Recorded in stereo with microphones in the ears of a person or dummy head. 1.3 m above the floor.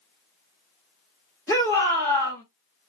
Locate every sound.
1.5 s a shout: 10° left (ahead or behind), 1.1 m